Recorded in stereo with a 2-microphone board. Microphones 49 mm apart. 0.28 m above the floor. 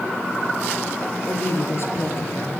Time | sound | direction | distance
1.3 | a woman speaking | 60° left (ahead or behind) | 4 m